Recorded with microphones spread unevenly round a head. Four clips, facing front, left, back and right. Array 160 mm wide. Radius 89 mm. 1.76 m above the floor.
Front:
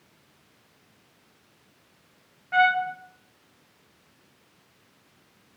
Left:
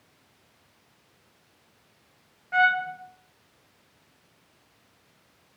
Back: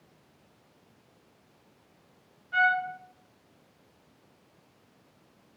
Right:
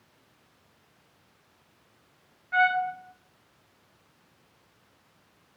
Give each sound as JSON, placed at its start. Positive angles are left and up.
{"t": 2.5, "sound": "a trumpet", "azimuth_deg": 25, "distance_m": 0.7}